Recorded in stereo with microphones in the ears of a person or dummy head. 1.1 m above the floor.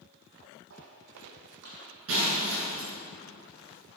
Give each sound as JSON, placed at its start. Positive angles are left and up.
{"t": 0.7, "sound": "footsteps", "side_deg": -70, "distance_m": 3.0}
{"t": 2.1, "sound": "breaking glass", "side_deg": -80, "distance_m": 7.0}